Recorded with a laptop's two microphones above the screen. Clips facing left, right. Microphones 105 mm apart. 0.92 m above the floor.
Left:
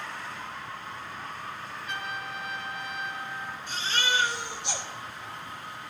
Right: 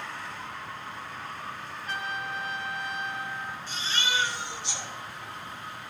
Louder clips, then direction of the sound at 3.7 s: Left 3 dB; 70° left (ahead or behind).